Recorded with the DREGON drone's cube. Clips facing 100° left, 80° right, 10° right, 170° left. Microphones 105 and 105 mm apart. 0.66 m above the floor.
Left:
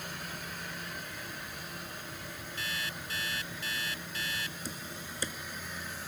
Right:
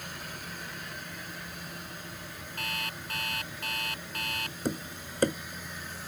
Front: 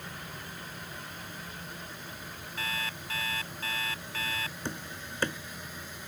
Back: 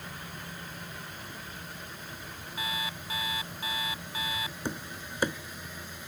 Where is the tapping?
110° right.